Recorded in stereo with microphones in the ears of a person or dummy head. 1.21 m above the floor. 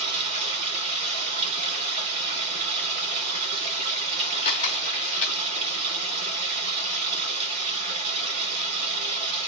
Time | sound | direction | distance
0.0 | running water | 35° right (ahead or behind) | 1.7 m
4.5 | a camera shutter | 35° left (ahead or behind) | 1.8 m